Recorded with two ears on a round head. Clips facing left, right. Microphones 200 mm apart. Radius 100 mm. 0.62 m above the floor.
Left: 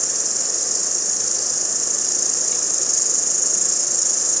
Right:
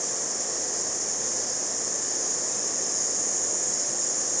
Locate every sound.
0.0 s an insect: 85° left, 1.0 m